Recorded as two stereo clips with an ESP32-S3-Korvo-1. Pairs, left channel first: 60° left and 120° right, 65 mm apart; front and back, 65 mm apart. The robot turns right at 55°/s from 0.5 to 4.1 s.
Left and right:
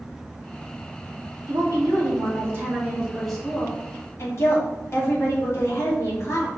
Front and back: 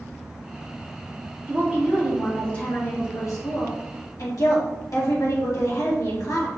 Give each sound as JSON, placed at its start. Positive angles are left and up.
{"t": 1.5, "sound": "a woman speaking", "azimuth_deg": -125, "distance_m": 1.3}